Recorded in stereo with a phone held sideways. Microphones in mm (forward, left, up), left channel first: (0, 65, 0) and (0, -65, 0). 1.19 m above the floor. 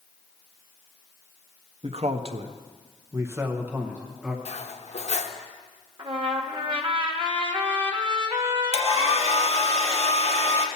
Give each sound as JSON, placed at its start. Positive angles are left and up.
{"t": 1.8, "sound": "a man speaking", "side_deg": -50, "distance_m": 0.7}
{"t": 4.5, "sound": "cutlery clinking", "side_deg": 60, "distance_m": 0.7}
{"t": 6.0, "sound": "a trumpet", "side_deg": -40, "distance_m": 1.0}
{"t": 8.7, "sound": "a hair dryer", "side_deg": 55, "distance_m": 1.3}